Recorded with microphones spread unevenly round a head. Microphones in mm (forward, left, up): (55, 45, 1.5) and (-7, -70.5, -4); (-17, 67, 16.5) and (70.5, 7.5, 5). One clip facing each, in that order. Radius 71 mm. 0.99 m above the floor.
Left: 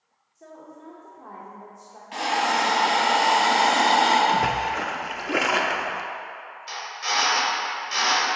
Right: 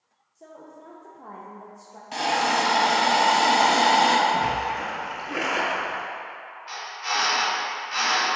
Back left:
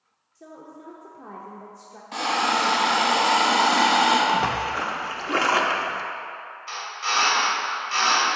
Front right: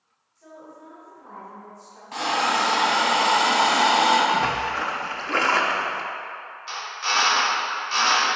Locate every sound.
0.3 s a woman speaking: 165° left, 0.7 m
2.1 s a hiss: 130° right, 1.0 m
4.3 s a splash: 70° left, 0.5 m
6.7 s a drill: 25° left, 1.9 m